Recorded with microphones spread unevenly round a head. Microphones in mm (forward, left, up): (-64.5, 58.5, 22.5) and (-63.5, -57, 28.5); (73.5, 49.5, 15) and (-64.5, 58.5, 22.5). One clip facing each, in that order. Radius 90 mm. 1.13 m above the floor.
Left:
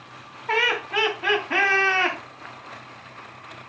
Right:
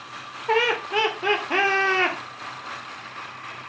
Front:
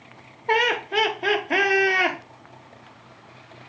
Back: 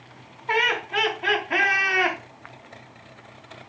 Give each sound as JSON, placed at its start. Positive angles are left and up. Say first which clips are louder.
{"t": 0.5, "sound": "laughter", "louder": "right 3 dB, front 3 dB", "azimuth_deg": -30, "distance_m": 0.7}